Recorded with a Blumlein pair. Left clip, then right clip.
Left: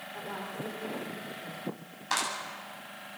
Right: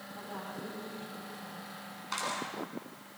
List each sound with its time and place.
0.1 s a woman speaking: 65° left, 5.5 m
2.1 s a clap: 40° left, 9 m